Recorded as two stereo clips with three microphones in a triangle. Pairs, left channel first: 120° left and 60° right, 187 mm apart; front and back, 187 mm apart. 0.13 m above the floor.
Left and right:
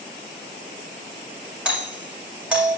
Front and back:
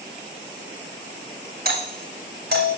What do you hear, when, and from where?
1.6 s a doorbell: 145° right, 7 m